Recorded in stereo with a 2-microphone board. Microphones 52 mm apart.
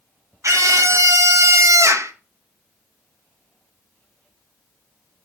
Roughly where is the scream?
Right.